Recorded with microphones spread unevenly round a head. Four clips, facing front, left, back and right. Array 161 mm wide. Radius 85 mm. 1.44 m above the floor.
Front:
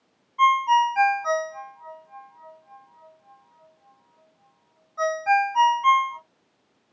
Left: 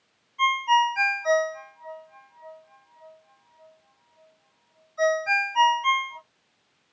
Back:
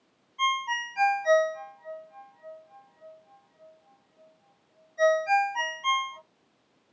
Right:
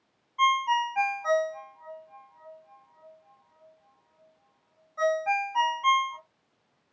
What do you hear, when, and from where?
0.4 s a ringtone: 30° right, 1.8 m